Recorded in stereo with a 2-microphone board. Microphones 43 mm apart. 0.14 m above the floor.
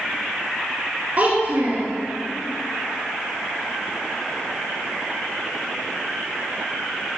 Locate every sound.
1.2 s a child speaking: 40° right (ahead or behind), 1.1 m